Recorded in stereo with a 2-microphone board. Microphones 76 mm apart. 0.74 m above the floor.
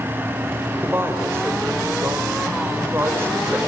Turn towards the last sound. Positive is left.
turn(degrees=-30)  # may be behind; listen again after turning